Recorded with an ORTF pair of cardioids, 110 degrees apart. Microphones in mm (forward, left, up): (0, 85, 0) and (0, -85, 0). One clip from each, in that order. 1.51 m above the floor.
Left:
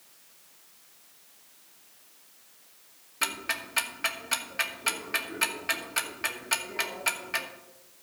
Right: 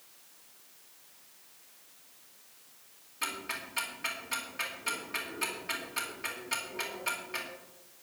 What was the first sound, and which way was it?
Ticking, 45° left.